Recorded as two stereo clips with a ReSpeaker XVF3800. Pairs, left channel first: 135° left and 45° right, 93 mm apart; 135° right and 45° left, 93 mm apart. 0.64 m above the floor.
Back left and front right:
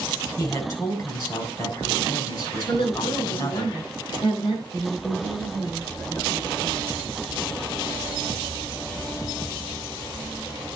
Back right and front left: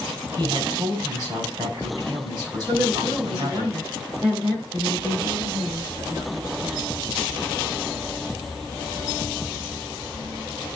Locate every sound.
0.4 s a man speaking: 90° left, 4 m
2.7 s a woman speaking: 100° left, 6.5 m
4.7 s a woman speaking: 95° left, 8 m